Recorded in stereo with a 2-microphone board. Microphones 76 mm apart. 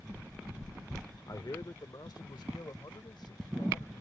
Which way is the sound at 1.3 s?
60° left (ahead or behind).